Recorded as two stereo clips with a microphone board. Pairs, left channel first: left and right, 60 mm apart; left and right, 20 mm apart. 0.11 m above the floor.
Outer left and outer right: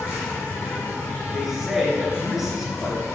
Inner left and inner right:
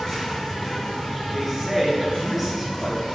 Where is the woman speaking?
5° right (ahead or behind), 1.5 m.